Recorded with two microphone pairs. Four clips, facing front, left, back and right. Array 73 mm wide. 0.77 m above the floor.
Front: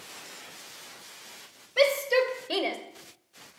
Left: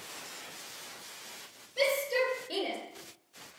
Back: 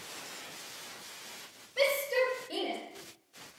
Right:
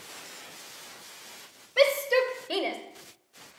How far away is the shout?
About 3 m.